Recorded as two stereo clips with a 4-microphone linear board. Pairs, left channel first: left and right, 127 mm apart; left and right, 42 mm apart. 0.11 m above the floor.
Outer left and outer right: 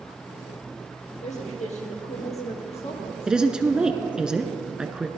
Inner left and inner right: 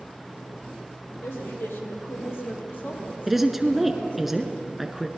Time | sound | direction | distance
1.2 | a woman speaking | 65° left (ahead or behind) | 3.5 m
3.3 | a woman speaking | 5° right (ahead or behind) | 1.1 m